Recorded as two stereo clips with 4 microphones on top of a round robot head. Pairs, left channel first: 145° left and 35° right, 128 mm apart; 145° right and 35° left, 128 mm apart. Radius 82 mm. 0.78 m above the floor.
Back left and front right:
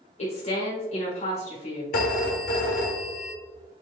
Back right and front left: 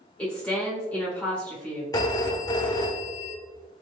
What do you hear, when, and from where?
0.2 s a woman speaking: 135° left, 1.2 m
1.9 s a phone ringing: 150° left, 0.9 m